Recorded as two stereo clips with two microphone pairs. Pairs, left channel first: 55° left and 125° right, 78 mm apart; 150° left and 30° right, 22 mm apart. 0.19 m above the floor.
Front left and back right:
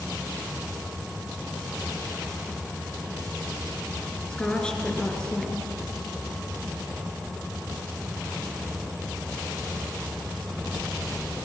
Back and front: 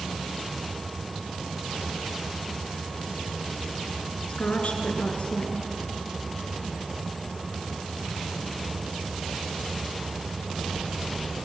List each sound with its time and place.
4.3 s a woman speaking: 130° left, 3 m